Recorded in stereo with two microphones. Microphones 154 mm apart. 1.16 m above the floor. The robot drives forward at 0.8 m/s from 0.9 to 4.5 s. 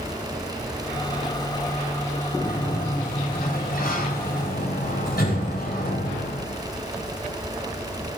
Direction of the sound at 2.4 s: 65° left (ahead or behind).